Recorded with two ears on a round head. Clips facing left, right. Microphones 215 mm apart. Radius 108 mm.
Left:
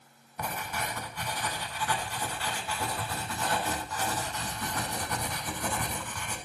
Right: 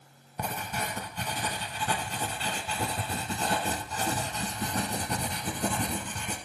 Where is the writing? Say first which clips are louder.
Right 1 dB; 25° right (ahead or behind), 0.6 m.